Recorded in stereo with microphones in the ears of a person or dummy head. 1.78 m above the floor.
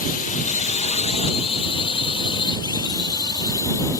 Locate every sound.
0.0 s a drone: 45° left (ahead or behind); by 4.0 s 15° left (ahead or behind)